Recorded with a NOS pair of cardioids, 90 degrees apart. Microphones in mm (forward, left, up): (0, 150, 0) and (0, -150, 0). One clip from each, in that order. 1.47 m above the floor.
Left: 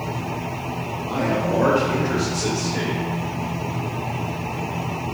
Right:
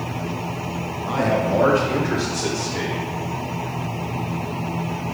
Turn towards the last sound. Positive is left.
turn(degrees=0)